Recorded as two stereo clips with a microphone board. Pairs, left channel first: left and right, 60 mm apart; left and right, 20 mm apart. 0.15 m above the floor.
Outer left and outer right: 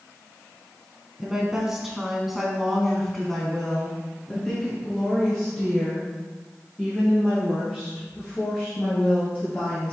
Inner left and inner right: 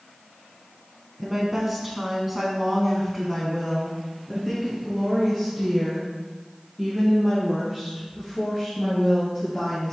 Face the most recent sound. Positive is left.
turn(degrees=15)  # may be behind; listen again after turning